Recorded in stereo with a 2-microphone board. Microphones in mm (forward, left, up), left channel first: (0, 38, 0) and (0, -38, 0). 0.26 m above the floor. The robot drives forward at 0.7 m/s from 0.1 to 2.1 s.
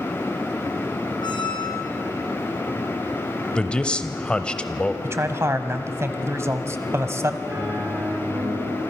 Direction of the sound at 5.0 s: 40° right (ahead or behind).